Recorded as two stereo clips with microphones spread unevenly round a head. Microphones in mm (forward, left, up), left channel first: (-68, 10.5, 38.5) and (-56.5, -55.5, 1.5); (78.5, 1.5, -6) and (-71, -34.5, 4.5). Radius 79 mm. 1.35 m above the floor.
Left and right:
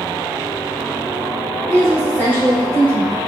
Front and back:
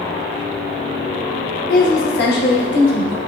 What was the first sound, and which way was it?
A woman speaking, 20° right.